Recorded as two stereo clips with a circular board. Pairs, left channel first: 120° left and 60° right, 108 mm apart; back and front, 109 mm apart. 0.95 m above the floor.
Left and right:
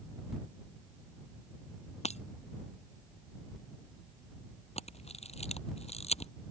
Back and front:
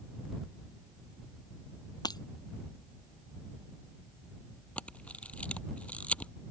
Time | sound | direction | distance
2.0 | breaking glass | 130° left | ?
4.8 | a camera shutter | 100° left | ?